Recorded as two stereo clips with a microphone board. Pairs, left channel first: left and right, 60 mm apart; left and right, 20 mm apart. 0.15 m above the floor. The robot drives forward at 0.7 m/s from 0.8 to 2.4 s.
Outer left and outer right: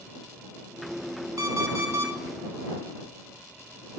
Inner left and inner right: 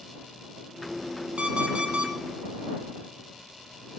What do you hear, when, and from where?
1.4 s an alarm clock: 70° right (ahead or behind), 2.0 m; by 2.1 s 60° right (ahead or behind), 2 m